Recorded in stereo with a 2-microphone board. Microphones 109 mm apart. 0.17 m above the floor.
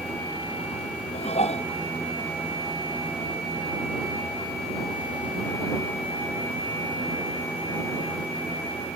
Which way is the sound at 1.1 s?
75° left (ahead or behind).